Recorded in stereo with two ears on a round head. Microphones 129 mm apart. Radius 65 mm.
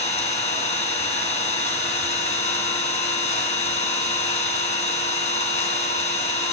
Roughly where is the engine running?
Left.